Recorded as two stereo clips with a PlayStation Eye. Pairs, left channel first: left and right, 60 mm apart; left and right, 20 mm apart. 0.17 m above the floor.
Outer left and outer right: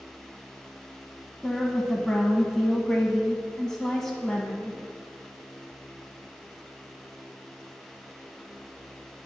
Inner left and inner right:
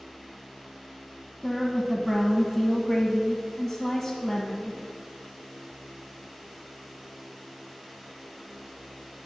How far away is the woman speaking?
About 1.0 m.